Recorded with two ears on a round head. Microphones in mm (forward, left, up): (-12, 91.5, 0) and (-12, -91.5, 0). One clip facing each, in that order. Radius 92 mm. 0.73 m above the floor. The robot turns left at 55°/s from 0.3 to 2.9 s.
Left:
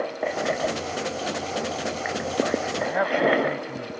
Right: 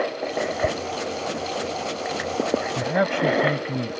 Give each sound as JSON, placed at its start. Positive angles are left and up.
{"t": 0.6, "sound": "a whoosh", "side_deg": -65}
{"t": 2.8, "sound": "a man speaking", "side_deg": -55}